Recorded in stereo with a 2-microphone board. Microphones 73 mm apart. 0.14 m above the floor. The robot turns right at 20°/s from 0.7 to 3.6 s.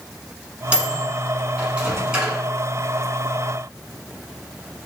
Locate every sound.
0.7 s a microwave: 20° right (ahead or behind), 0.8 m; by 2.4 s 10° right (ahead or behind), 0.8 m